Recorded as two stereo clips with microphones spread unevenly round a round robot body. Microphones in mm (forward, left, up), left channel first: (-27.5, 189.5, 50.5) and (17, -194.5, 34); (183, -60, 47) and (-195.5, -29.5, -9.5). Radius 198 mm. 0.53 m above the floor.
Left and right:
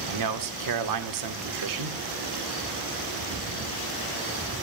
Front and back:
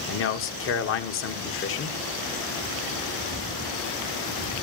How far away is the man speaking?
About 1.5 m.